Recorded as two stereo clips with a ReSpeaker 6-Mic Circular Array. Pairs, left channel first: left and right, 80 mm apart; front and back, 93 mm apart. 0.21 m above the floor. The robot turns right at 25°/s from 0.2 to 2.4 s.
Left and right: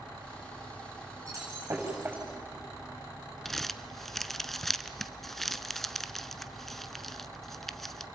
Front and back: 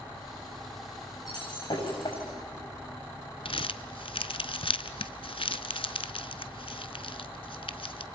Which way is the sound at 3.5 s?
5° left.